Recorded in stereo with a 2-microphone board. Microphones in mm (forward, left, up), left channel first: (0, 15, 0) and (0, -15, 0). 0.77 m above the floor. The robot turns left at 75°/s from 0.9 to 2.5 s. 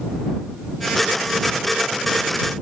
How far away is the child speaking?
No child speaking in this recording.